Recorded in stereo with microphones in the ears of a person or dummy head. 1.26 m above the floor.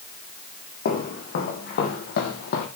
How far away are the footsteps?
About 4 m.